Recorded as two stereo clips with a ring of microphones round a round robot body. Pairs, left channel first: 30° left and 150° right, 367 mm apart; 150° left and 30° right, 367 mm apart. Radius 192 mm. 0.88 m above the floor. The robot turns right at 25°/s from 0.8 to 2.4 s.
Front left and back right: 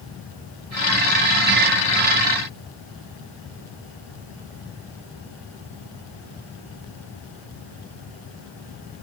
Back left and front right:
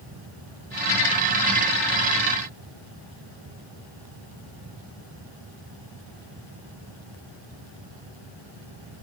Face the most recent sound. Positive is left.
No sound to turn to.